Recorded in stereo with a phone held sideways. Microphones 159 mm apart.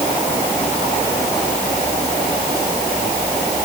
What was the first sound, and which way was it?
Only background noise.